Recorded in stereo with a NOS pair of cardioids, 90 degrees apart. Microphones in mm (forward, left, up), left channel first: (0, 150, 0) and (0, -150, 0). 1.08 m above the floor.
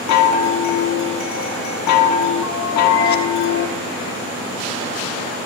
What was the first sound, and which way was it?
A chime, 70° left.